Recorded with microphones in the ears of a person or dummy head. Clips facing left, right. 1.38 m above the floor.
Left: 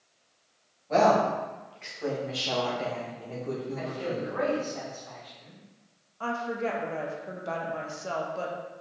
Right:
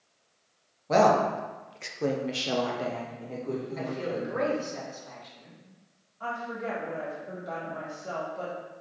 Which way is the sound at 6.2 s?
65° left (ahead or behind).